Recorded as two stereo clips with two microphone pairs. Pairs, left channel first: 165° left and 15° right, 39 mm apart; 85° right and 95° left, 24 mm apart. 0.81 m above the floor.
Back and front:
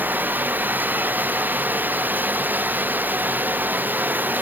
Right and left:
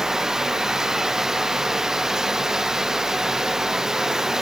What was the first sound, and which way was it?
Running water, 25° left.